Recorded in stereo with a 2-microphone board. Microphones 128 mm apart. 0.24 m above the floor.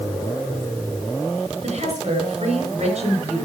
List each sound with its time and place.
1.6 s a woman speaking: 60° right (ahead or behind), 3.5 m